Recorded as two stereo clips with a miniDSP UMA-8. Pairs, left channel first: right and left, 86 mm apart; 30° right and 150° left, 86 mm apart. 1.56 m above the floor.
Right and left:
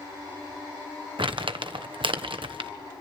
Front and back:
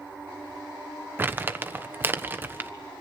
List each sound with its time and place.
1.2 s crumpling: 85° left, 1.2 m